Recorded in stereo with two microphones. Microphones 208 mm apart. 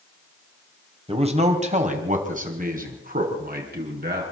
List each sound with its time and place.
1.1 s a man speaking: 30° right (ahead or behind), 3 m; by 4.2 s 50° right (ahead or behind), 6.5 m